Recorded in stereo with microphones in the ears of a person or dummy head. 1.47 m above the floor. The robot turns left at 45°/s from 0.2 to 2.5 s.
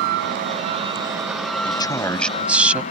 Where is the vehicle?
120° right; by 2.9 s 140° left.